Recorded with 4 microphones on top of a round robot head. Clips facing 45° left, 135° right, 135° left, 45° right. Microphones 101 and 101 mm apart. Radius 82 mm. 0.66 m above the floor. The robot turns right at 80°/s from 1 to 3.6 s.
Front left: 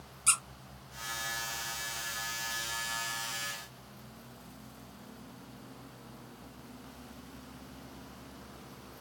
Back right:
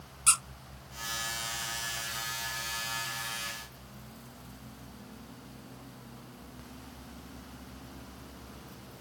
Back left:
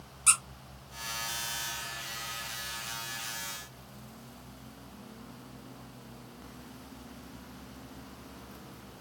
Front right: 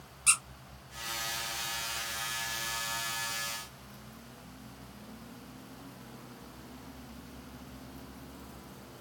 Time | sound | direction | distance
0.3 | a squeak | 175° right | 1.6 m